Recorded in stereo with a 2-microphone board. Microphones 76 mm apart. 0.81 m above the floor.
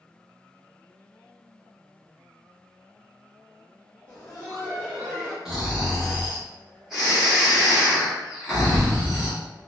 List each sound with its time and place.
4.1 s laughter: 20° left (ahead or behind), 1.0 m; by 5.3 s 25° left (ahead or behind), 1.7 m
5.5 s snoring: 5° right (ahead or behind), 1.1 m